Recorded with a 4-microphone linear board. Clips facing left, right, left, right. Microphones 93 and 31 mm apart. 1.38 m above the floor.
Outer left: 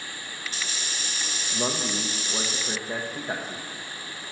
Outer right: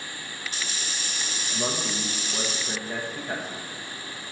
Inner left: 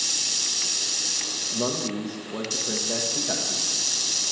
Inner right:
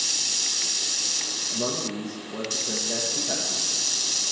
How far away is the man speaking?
About 1.4 m.